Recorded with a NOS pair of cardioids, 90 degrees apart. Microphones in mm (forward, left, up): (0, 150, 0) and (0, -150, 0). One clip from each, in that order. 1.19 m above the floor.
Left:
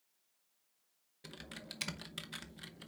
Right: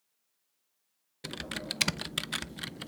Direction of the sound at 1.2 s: 55° right.